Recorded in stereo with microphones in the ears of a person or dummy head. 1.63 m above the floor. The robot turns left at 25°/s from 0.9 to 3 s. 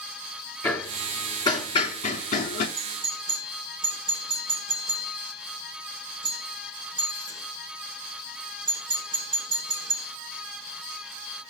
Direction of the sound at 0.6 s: 10° left (ahead or behind).